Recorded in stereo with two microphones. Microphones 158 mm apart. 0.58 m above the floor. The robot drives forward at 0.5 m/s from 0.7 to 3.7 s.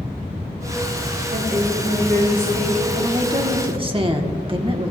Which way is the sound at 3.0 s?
30° right (ahead or behind).